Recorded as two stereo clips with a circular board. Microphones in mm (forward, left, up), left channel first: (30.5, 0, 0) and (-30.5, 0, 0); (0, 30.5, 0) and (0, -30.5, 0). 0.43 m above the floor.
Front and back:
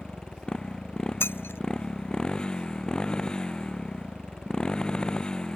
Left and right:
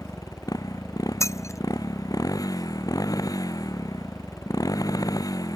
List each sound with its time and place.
0.0 s a motorcycle: 80° left
1.2 s breaking glass: 55° left